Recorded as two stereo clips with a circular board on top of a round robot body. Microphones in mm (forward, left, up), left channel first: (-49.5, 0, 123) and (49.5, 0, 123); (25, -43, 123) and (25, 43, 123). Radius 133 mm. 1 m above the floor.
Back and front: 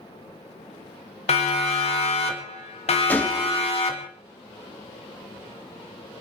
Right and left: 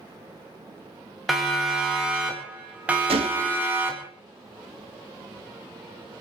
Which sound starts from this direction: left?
A gunshot, at 3.1 s.